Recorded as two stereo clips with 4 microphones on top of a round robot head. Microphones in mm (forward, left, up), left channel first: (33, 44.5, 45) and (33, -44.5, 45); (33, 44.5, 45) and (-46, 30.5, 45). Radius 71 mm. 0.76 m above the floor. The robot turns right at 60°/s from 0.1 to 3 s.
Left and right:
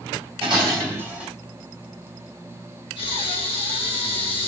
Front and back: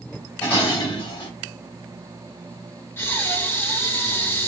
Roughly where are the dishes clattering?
Ahead right.